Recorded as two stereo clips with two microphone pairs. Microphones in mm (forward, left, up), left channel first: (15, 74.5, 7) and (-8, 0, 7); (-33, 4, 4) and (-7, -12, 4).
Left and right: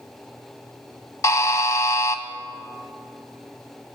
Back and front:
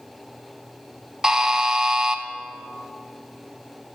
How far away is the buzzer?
About 0.7 m.